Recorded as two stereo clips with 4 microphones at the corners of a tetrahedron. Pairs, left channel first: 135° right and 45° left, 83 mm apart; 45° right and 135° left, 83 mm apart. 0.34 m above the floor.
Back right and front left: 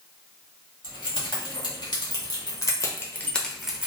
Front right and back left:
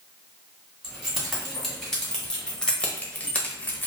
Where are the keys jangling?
135° right, 1.5 m; by 3.9 s 10° right, 0.6 m.